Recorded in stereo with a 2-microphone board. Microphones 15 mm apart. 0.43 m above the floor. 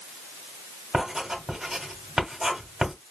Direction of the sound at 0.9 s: 35° right (ahead or behind).